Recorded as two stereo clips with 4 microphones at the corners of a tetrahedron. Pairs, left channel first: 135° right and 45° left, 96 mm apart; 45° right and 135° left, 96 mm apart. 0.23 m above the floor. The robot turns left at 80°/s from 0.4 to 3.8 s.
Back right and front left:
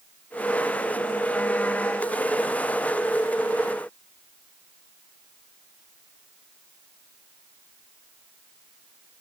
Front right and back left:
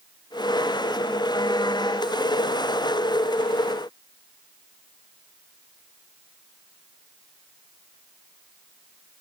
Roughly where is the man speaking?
No man speaking in this recording.